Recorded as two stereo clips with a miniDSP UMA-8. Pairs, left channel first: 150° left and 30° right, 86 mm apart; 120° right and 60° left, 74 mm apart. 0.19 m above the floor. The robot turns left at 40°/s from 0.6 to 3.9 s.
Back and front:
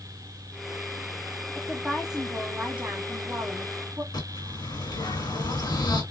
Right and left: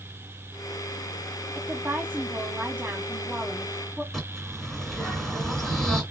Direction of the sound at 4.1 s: 155° left.